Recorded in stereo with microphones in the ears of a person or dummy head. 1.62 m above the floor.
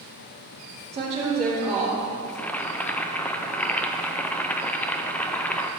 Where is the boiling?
10° left (ahead or behind), 0.6 m.